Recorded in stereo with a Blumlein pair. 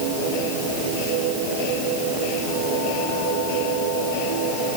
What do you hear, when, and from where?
Only background noise.